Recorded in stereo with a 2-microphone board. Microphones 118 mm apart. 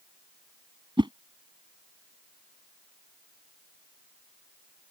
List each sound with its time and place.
1.0 s a whoosh: 45° right (ahead or behind)